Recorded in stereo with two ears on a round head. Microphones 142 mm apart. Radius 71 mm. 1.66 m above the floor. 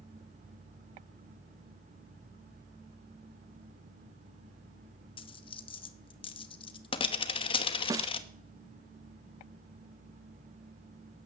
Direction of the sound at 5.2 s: 35° left (ahead or behind).